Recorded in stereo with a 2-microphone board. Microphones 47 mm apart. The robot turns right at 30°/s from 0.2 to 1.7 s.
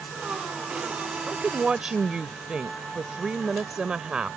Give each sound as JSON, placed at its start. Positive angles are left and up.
{"t": 1.3, "sound": "a woman speaking", "side_deg": -10}